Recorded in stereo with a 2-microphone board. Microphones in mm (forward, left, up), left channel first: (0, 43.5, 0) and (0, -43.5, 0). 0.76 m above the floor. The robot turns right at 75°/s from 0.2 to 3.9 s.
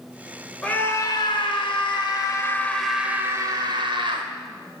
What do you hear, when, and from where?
0.6 s a scream: 10° left, 2.5 m; by 4.3 s 105° right, 2.5 m